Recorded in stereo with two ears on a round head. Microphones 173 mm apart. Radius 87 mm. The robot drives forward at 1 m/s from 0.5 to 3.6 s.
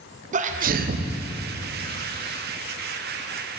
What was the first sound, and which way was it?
A sneeze, 40° right (ahead or behind).